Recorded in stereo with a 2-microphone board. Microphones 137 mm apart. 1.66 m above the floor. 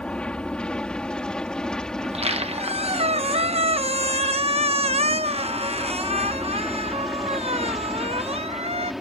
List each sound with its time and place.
0.0 s an aircraft: 5° left (ahead or behind); by 9.0 s 5° right (ahead or behind)
2.0 s a squeak: 50° right (ahead or behind)